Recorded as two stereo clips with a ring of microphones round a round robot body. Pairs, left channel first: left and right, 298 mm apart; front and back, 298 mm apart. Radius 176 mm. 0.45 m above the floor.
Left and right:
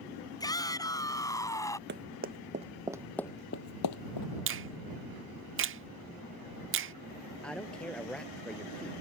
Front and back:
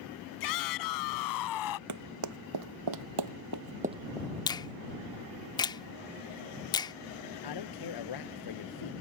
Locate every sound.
0.4 s a shout: 10° left
1.9 s running footsteps: 150° right; by 4.3 s 85° left
4.5 s a finger snap: 70° right
7.4 s a man speaking: 5° left